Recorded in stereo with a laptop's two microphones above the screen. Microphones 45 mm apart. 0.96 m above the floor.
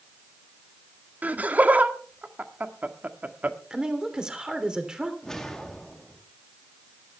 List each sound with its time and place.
1.2 s laughter: 35° right (ahead or behind), 1.6 m
3.7 s a woman speaking: 15° right (ahead or behind), 3 m
5.2 s a whoosh: 10° left (ahead or behind), 1.4 m